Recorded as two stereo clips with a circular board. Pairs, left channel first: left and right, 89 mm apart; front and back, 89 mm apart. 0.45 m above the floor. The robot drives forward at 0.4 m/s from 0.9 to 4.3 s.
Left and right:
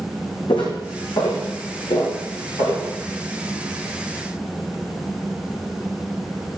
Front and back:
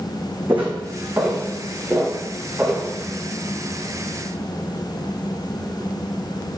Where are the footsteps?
115° left, 1.9 m; by 2.9 s 100° left, 3 m.